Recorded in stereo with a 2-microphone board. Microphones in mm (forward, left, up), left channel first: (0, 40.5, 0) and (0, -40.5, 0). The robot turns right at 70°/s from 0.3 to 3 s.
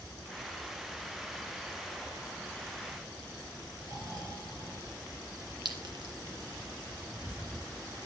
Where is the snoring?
55° right (ahead or behind), 3 m.